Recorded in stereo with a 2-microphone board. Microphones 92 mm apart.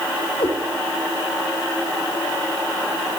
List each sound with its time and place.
0.4 s a cat meowing: 75° left (ahead or behind), 1.9 m